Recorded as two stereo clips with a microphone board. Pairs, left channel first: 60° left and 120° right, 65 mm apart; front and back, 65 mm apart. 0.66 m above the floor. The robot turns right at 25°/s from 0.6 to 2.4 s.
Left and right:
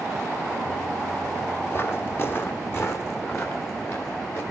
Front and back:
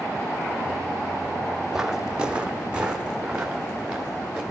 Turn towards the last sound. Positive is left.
turn(degrees=100)